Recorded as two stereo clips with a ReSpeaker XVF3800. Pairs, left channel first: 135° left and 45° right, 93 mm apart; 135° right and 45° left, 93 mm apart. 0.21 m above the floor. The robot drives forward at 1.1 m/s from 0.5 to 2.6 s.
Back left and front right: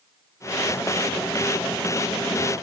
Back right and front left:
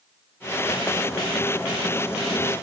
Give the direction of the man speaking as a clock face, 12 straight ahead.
No man speaking in this recording.